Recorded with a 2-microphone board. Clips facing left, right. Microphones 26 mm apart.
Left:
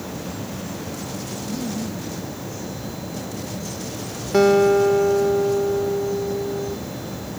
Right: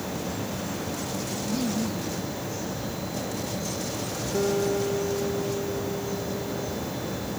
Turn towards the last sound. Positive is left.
turn(degrees=75)  # may be behind; listen again after turning